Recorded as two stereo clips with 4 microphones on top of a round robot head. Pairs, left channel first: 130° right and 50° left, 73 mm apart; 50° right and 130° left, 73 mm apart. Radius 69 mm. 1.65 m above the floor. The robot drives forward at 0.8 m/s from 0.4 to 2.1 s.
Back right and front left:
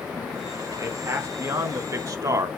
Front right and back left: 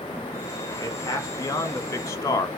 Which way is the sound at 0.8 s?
Straight ahead.